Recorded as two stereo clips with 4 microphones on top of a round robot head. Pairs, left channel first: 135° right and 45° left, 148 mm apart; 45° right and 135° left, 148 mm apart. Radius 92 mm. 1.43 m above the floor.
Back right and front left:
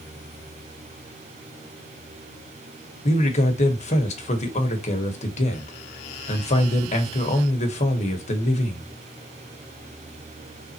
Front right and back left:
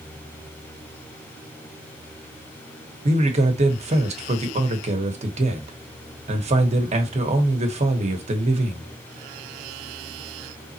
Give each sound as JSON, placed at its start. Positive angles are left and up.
{"t": 3.0, "sound": "a man speaking", "azimuth_deg": 180, "distance_m": 1.2}